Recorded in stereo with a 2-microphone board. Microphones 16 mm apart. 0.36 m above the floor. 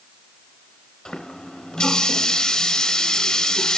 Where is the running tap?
60° left (ahead or behind), 3.5 m.